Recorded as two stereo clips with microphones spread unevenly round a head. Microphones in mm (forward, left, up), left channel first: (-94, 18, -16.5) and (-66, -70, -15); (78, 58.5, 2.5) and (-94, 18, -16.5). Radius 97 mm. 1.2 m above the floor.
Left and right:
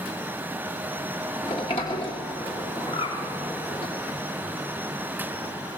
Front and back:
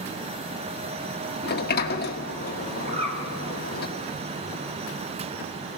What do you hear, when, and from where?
1.4 s a sliding door: 45° left, 1.6 m
2.9 s a bird: 135° left, 4 m